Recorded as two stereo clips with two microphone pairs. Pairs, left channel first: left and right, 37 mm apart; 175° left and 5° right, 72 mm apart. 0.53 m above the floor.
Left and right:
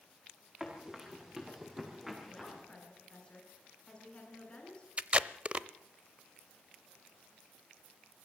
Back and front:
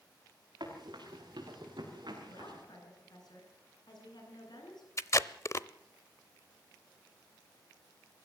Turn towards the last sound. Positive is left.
turn(degrees=-140)